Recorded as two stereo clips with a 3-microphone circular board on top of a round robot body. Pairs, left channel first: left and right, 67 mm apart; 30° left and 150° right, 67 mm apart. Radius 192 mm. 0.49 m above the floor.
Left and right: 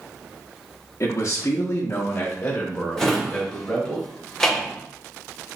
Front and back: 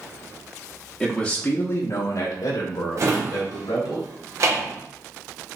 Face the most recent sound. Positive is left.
turn(degrees=170)